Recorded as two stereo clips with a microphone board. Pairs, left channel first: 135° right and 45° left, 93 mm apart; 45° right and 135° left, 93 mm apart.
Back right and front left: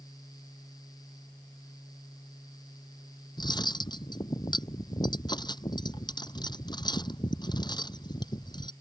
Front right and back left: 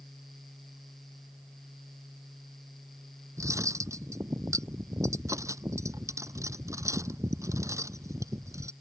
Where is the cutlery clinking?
170° right.